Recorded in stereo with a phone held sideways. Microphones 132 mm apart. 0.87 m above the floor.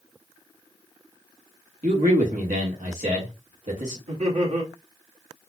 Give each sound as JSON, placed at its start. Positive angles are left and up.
{"t": 1.8, "sound": "a man speaking", "side_deg": -75, "distance_m": 1.1}
{"t": 4.1, "sound": "laughter", "side_deg": -65, "distance_m": 2.0}